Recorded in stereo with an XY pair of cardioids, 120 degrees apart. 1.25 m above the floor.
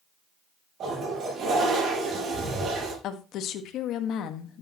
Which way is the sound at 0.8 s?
50° right.